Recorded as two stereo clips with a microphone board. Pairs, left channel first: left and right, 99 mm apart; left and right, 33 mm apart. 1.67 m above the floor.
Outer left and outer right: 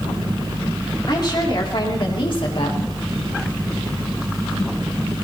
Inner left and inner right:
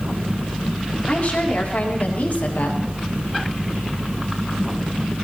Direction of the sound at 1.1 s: 50° left (ahead or behind).